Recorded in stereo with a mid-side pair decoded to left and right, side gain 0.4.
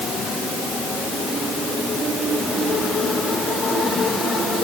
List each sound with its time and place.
Only background noise.